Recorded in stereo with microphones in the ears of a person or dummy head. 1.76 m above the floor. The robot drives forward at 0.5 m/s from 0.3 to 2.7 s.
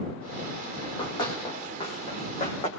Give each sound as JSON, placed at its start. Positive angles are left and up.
{"t": 0.8, "sound": "running footsteps", "side_deg": 25, "distance_m": 5.5}